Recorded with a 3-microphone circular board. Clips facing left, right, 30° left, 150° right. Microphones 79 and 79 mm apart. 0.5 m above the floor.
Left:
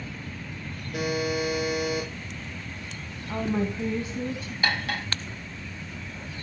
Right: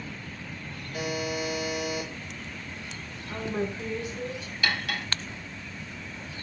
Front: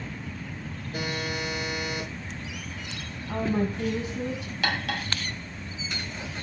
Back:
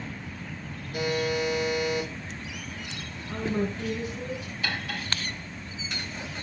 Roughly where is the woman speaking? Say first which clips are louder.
Left 3 dB, front 2 dB; ahead left.